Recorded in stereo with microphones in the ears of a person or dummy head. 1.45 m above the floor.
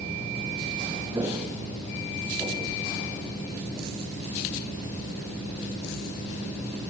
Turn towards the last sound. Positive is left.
turn(degrees=-10)  # may be behind; listen again after turning